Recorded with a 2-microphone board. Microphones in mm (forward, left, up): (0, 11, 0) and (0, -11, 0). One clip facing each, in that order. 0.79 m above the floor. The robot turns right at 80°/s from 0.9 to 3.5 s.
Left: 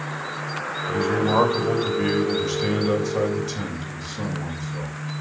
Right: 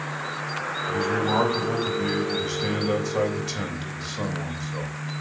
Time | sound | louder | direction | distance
0.9 | a man speaking | left 3 dB | 5° left | 3 m